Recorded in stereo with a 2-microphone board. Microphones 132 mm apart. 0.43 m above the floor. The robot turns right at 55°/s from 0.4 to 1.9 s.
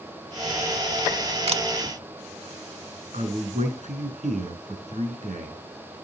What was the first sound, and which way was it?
A camera shutter, 50° right (ahead or behind).